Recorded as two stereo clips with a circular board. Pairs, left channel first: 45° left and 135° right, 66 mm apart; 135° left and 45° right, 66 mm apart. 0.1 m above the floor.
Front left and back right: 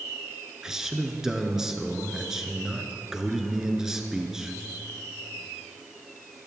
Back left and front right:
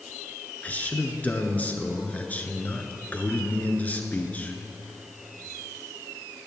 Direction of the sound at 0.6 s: 155° left.